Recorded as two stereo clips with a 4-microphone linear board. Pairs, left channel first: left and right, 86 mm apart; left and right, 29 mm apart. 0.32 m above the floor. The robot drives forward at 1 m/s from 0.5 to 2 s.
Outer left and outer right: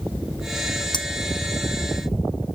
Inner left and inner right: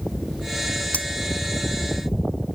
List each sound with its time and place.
0.9 s cutlery clinking: 60° left (ahead or behind); by 1.1 s 65° left (ahead or behind)